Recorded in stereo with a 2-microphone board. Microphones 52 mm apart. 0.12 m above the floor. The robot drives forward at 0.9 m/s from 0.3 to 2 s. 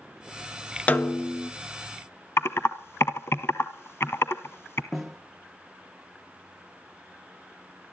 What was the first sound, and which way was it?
A snare drum, 35° left (ahead or behind).